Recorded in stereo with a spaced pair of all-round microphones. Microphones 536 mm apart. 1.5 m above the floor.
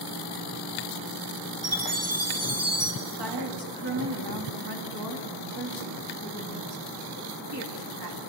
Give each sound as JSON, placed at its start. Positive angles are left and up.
{"t": 1.6, "sound": "a chime", "side_deg": -25, "distance_m": 2.5}
{"t": 3.0, "sound": "a woman speaking", "side_deg": -45, "distance_m": 3.5}